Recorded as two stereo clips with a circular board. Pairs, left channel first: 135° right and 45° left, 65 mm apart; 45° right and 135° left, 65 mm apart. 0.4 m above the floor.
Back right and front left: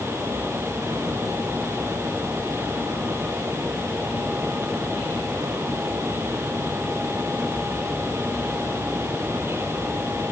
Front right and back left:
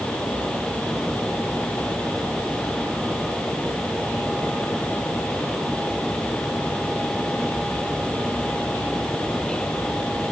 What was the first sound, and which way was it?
Only background noise.